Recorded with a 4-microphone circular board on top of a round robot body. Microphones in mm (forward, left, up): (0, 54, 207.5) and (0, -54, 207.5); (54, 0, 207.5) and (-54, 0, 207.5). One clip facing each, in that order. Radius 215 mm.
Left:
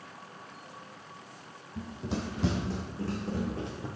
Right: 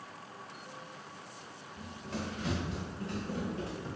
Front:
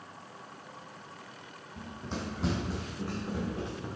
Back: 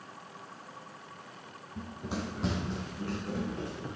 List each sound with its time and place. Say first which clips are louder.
1.8 s running footsteps: left 5 dB, back 2 dB; 115° left, 1.1 m; by 3.9 s 70° left, 3 m